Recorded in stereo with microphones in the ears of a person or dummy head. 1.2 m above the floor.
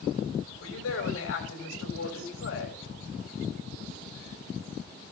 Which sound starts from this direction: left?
A woman speaking, at 0.6 s.